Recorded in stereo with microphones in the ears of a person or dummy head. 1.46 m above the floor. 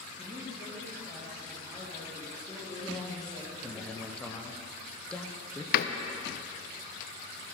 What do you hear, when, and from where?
0.2 s a man speaking: 15° left (ahead or behind), 2 m
2.8 s a man speaking: 5° left (ahead or behind), 0.7 m
5.7 s a door slam: 55° left (ahead or behind), 0.5 m